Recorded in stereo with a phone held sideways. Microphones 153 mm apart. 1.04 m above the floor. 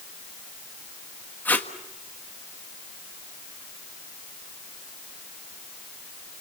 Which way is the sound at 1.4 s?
10° left (ahead or behind).